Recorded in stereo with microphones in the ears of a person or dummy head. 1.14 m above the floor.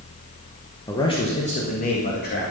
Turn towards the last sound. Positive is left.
turn(degrees=45)  # may be behind; listen again after turning